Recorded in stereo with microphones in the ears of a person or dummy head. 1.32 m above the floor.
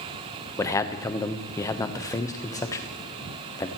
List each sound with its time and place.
0.6 s a man speaking: 15° left (ahead or behind), 1.0 m